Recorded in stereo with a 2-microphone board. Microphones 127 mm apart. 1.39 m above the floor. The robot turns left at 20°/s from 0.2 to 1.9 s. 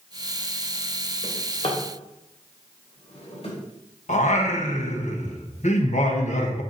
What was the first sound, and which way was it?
A drawer, 40° left (ahead or behind).